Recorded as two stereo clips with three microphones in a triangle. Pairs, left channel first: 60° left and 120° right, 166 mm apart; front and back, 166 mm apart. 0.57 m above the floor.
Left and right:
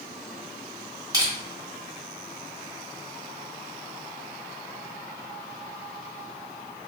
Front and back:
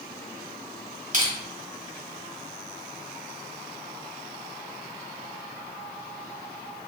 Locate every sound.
1.1 s crushing: straight behind, 1.3 m